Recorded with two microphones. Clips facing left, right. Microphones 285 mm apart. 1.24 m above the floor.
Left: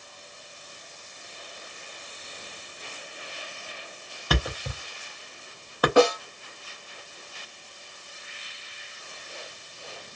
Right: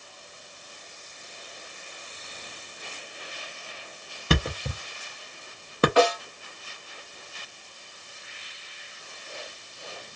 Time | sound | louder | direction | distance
4.3 | a thud | right 3 dB | 30° right (ahead or behind) | 0.6 m
6.0 | a snare drum | left 4 dB | 50° left (ahead or behind) | 1.0 m